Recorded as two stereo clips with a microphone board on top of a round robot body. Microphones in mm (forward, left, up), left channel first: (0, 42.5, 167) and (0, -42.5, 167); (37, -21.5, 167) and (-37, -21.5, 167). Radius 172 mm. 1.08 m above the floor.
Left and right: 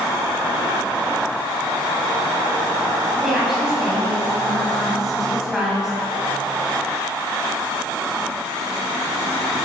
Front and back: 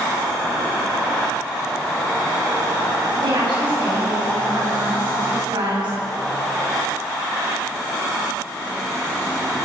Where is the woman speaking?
175° right, 9.5 m.